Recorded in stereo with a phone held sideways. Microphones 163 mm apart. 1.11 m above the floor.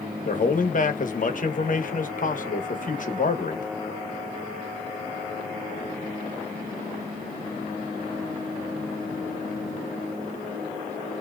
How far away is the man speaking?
About 1.0 m.